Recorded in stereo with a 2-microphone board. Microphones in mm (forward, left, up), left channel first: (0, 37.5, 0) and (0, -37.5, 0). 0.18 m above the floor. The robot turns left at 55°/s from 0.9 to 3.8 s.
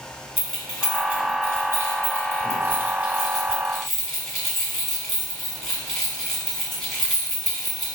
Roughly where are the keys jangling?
Centre.